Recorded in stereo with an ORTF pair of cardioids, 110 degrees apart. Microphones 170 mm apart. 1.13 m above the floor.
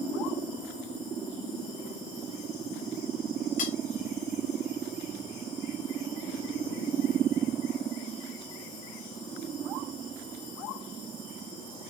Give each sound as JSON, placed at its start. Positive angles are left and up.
{"t": 3.6, "sound": "cutlery clinking", "azimuth_deg": 50, "distance_m": 4.0}